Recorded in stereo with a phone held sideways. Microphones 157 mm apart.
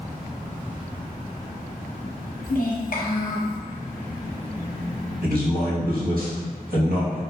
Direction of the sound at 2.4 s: 60° left (ahead or behind).